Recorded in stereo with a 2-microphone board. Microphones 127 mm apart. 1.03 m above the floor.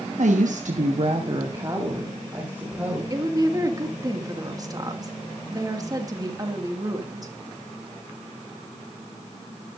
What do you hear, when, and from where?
0.2 s a woman speaking: 70° right (ahead or behind), 1.2 m; by 3.0 s 10° right (ahead or behind), 3.5 m
3.1 s a woman speaking: 30° right (ahead or behind), 1.8 m